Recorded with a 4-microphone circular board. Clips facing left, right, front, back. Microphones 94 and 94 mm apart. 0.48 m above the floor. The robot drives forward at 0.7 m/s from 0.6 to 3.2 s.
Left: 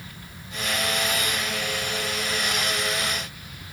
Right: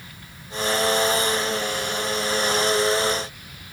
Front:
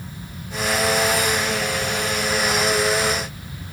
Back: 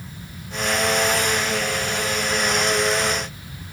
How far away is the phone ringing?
I don't hear a phone ringing.